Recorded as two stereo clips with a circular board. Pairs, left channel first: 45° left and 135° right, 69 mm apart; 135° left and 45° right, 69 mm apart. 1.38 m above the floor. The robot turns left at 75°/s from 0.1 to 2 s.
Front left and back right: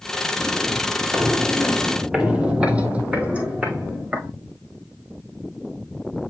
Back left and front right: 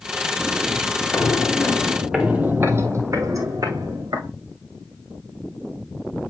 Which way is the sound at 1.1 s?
165° right.